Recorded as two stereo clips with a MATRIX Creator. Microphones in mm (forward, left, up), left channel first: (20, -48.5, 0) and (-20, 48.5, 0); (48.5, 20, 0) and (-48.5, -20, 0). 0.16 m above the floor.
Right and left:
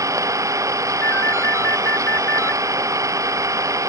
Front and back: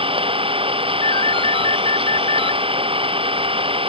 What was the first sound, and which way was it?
An engine running, 170° left.